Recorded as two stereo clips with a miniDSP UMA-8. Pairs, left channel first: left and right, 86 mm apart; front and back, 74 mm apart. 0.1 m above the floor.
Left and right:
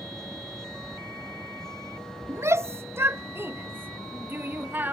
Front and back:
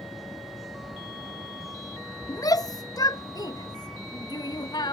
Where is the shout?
35° right; by 5.0 s 20° right.